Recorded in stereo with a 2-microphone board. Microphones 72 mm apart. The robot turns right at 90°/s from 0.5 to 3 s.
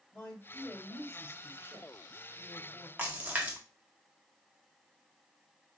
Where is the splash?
20° right (ahead or behind), 1.0 m.